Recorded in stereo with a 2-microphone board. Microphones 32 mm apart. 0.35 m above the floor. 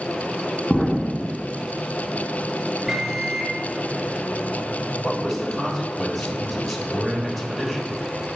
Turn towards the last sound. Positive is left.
turn(degrees=0)  # may be behind; listen again after turning